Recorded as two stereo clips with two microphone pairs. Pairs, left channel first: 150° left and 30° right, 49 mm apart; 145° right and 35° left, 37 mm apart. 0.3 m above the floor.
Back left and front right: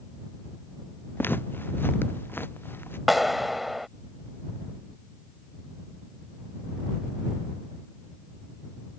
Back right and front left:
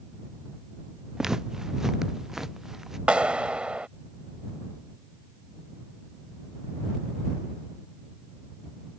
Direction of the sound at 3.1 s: 55° left.